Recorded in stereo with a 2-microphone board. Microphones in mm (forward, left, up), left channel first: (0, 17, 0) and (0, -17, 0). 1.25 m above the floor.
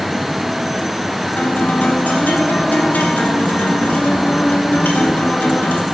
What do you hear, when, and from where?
1.4 s a guitar: 60° left (ahead or behind), 1.0 m